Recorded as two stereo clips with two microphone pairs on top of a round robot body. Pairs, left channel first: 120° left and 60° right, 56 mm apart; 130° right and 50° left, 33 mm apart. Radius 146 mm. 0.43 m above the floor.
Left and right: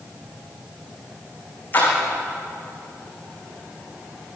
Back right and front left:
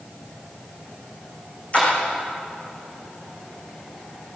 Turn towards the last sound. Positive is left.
turn(degrees=180)